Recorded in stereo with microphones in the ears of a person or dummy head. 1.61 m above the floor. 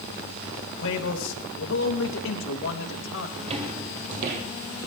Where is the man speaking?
80° left, 2.5 m.